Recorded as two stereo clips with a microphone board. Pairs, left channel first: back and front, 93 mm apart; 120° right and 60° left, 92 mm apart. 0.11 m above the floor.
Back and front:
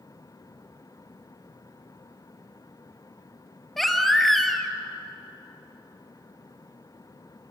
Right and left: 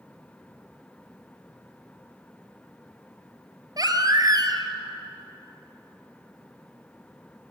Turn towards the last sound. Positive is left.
turn(degrees=90)